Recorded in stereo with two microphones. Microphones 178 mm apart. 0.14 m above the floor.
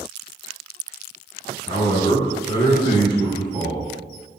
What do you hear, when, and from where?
1.7 s a man speaking: 25° left (ahead or behind), 1.4 m